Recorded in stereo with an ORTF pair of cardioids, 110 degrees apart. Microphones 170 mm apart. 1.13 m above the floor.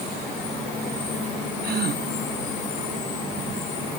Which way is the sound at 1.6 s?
65° right.